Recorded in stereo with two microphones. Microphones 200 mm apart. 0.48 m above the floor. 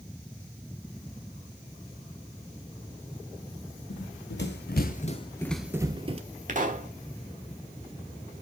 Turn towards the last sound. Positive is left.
turn(degrees=-40)  # may be behind; listen again after turning